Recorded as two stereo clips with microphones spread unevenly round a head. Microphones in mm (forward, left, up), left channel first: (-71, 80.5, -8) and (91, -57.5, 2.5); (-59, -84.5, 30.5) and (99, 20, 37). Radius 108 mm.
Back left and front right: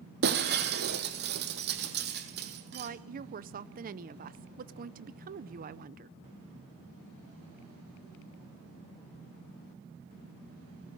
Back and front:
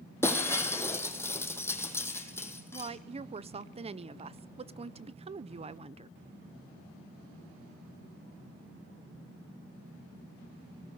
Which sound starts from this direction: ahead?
A woman speaking, at 2.7 s.